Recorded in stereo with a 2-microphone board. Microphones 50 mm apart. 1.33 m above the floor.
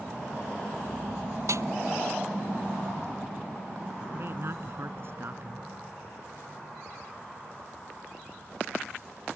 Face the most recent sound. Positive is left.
turn(degrees=-50)  # may be behind; listen again after turning